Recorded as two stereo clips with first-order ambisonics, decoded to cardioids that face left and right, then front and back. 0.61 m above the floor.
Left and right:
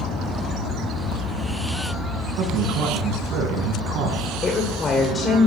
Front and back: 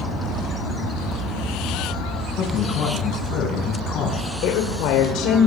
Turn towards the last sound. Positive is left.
turn(degrees=20)